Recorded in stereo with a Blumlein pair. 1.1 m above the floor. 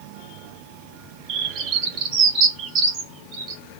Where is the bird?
35° right, 1.5 m.